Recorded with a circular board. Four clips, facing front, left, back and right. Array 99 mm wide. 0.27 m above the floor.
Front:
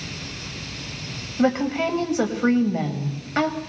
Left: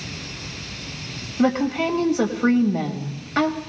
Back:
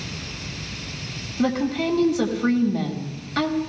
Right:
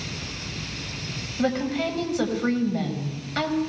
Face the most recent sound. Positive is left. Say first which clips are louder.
# left 4 dB, front 2 dB
turn(degrees=30)